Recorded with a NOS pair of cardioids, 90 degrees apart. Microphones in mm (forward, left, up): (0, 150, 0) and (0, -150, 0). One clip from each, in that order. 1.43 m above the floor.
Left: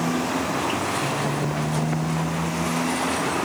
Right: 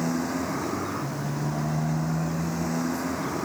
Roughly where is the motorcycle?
Ahead.